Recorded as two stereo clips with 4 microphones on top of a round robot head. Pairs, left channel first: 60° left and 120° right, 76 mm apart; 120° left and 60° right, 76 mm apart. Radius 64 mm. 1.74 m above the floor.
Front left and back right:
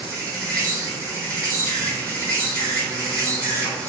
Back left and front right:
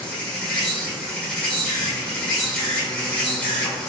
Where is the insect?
170° right, 1.7 m.